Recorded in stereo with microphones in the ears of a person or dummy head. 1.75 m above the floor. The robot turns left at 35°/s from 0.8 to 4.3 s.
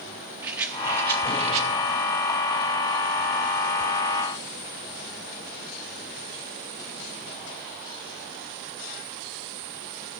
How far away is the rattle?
About 1.5 m.